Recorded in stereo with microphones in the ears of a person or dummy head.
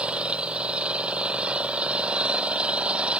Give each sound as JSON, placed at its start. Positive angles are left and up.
{"t": 0.0, "sound": "an engine running", "side_deg": -5}